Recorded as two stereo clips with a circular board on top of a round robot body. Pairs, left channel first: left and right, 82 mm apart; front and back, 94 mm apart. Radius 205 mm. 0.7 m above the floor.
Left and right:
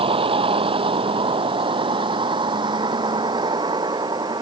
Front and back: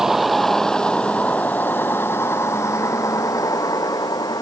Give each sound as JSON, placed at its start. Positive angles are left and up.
{"t": 0.0, "sound": "a vehicle", "azimuth_deg": -90}